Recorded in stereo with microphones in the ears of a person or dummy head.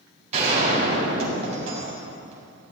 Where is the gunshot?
45° right (ahead or behind), 4.5 m.